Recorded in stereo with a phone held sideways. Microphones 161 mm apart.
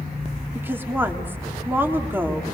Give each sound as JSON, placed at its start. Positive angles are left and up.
{"t": 0.6, "sound": "a woman speaking", "side_deg": -15, "distance_m": 3.5}